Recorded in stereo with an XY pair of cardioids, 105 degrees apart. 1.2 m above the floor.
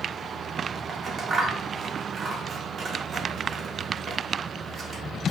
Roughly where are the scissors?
Ahead right.